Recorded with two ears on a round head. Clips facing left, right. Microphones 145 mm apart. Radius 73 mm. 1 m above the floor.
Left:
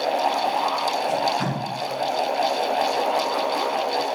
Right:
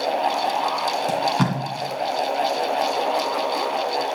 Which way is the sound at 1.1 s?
60° right (ahead or behind).